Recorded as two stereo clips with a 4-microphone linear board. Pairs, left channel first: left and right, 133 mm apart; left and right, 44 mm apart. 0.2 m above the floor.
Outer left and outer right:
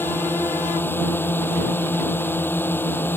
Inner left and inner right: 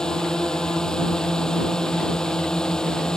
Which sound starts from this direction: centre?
A drone, at 0.0 s.